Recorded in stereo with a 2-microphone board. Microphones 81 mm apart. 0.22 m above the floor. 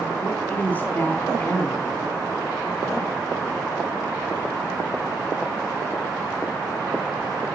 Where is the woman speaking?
25° left (ahead or behind), 1.6 m.